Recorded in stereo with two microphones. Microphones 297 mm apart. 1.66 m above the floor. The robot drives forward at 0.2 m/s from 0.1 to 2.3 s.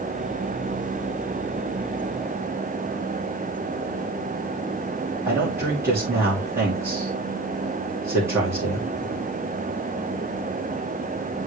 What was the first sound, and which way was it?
A man speaking, 10° right (ahead or behind).